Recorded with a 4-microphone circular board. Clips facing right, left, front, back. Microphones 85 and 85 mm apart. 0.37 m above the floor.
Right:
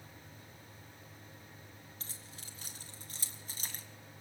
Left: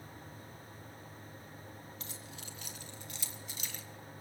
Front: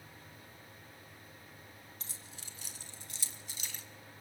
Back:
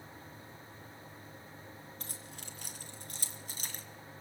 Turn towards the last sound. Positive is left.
turn(degrees=-135)